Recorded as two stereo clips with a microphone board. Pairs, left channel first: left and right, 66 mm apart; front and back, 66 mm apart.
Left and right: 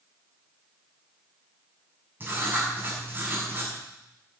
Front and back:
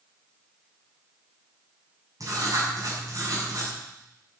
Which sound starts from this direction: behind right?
Writing, at 2.2 s.